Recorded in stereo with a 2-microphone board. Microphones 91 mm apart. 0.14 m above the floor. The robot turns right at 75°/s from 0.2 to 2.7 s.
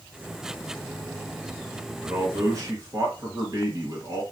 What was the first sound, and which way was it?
A man speaking, 110° right.